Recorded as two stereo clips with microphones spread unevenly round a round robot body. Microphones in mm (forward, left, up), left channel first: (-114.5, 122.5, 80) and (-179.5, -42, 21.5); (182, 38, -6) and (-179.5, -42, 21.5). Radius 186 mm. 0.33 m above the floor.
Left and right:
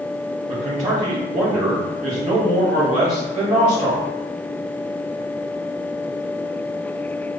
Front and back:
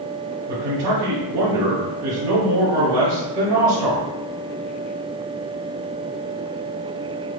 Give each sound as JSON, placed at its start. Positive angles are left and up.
{"t": 0.5, "sound": "a man speaking", "azimuth_deg": -160, "distance_m": 1.7}